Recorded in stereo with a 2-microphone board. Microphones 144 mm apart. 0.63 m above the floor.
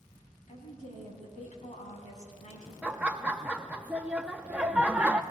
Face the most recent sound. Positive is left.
turn(degrees=-10)  # may be behind; listen again after turning